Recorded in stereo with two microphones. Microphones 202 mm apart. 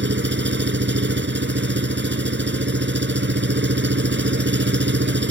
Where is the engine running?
65° right (ahead or behind).